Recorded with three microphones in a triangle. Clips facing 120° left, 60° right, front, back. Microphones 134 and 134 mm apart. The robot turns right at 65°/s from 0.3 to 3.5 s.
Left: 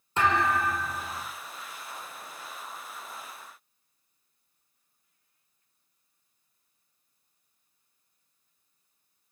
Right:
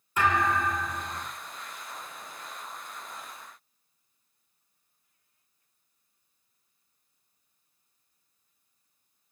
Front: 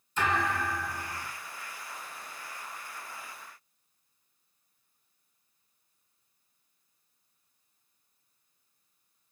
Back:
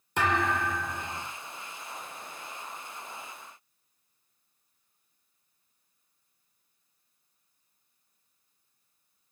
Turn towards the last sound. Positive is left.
turn(degrees=30)